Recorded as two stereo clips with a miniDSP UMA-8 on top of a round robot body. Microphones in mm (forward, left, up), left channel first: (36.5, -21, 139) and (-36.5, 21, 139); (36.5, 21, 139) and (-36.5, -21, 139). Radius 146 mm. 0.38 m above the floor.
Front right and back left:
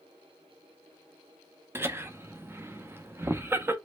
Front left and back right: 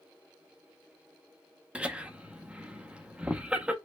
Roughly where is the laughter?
Behind left.